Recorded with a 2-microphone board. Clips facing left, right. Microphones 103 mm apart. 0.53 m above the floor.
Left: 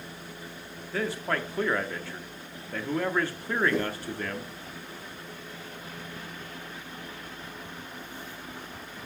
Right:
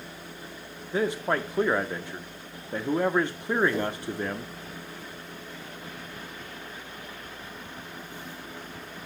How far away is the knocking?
About 4.5 m.